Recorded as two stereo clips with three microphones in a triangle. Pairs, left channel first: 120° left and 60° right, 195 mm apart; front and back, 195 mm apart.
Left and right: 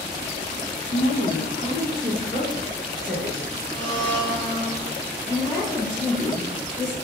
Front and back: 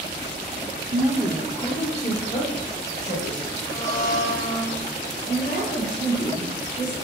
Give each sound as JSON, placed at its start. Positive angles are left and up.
{"t": 0.9, "sound": "a woman speaking", "azimuth_deg": 145, "distance_m": 0.8}
{"t": 3.7, "sound": "a blender", "azimuth_deg": 45, "distance_m": 1.8}
{"t": 5.3, "sound": "a woman speaking", "azimuth_deg": 25, "distance_m": 2.0}